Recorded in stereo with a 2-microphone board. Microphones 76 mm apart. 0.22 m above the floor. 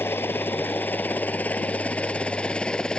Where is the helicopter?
30° left (ahead or behind); by 3.0 s 10° left (ahead or behind).